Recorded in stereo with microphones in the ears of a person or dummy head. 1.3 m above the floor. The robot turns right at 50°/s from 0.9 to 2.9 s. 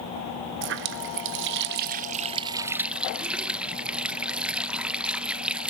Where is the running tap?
110° right, 0.6 m; by 5.7 s 10° right, 0.6 m.